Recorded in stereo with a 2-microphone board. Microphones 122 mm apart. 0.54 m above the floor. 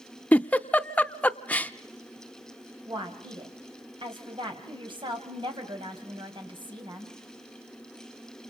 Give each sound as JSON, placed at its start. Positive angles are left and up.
{"t": 0.3, "sound": "a giggle", "side_deg": 10, "distance_m": 0.6}
{"t": 2.9, "sound": "a woman speaking", "side_deg": -40, "distance_m": 3.5}